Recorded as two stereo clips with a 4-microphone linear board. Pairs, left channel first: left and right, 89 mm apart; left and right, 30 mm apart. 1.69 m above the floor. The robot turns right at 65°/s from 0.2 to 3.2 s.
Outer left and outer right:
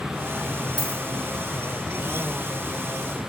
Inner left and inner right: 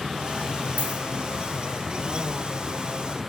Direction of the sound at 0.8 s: 55° right (ahead or behind).